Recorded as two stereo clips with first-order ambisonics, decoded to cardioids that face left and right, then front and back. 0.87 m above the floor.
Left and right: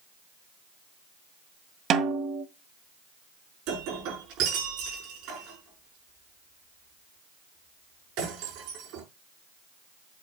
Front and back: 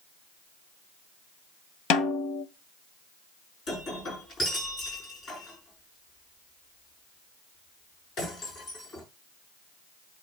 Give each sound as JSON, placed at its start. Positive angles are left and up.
{"t": 1.9, "sound": "a snare drum", "azimuth_deg": -35, "distance_m": 1.3}
{"t": 3.7, "sound": "breaking glass", "azimuth_deg": -60, "distance_m": 6.0}